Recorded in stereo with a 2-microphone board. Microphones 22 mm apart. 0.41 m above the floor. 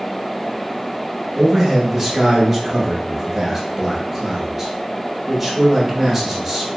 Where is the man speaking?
10° right (ahead or behind), 0.9 m.